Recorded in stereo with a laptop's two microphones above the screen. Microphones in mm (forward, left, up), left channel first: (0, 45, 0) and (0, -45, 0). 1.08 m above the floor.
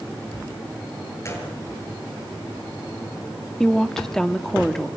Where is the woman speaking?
5° left (ahead or behind), 2 m.